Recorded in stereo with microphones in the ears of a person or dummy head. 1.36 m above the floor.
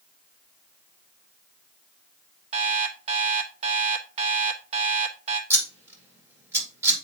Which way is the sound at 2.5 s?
40° right (ahead or behind).